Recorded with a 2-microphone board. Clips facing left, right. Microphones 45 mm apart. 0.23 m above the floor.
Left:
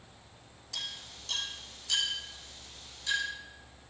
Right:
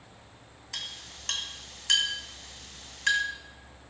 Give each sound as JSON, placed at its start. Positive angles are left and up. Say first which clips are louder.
{"t": 0.7, "sound": "a clink", "louder": "right 1 dB", "side_deg": -60, "distance_m": 2.0}